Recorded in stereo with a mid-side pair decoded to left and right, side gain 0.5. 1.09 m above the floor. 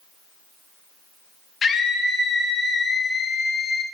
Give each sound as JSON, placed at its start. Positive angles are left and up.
{"t": 1.6, "sound": "a scream", "azimuth_deg": 40, "distance_m": 0.9}